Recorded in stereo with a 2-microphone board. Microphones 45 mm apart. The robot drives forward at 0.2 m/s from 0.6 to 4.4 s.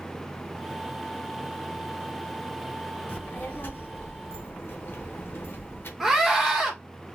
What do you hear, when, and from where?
3.1 s a child speaking: 50° left (ahead or behind), 1.1 m; by 5.9 s 55° left (ahead or behind), 1.1 m
6.0 s a scream: 10° right (ahead or behind), 1.6 m